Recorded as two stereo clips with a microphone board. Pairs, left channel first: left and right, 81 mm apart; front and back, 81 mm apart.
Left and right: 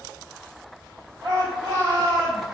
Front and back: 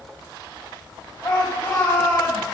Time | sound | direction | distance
1.2 | a shout | 60° right | 4 m